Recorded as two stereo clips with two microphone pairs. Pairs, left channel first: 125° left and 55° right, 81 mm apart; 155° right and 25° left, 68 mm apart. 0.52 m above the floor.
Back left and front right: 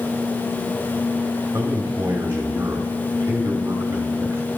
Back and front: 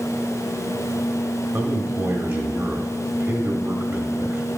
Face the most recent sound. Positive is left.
turn(degrees=-5)